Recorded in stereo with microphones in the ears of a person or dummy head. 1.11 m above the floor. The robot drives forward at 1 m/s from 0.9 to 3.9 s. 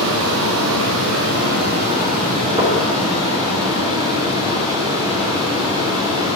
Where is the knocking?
25° right (ahead or behind), 2.5 m; by 2.8 s 20° right (ahead or behind), 3 m.